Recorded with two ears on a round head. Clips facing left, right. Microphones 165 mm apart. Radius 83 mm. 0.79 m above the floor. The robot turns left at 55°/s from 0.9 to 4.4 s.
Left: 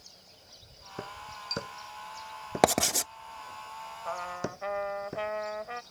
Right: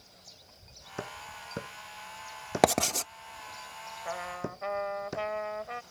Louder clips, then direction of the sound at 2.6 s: Even; centre (ahead or behind).